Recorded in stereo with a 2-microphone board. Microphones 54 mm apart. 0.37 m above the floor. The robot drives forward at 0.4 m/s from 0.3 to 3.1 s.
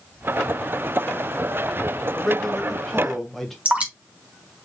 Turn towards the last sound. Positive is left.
turn(degrees=-25)  # may be behind; listen again after turning